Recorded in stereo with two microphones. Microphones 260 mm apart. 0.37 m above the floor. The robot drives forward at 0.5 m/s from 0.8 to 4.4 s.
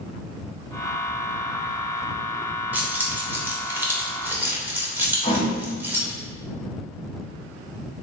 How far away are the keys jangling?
About 1.0 m.